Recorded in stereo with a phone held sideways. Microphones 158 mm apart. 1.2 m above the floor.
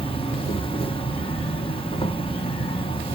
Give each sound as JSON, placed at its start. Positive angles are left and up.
{"t": 0.0, "sound": "an insect", "side_deg": 35, "distance_m": 1.0}